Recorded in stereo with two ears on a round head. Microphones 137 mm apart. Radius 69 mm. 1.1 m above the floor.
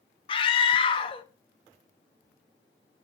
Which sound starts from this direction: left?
A scream, at 0.3 s.